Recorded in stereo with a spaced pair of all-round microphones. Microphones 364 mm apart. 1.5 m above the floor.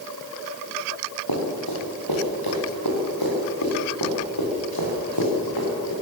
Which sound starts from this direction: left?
Running footsteps, at 1.3 s.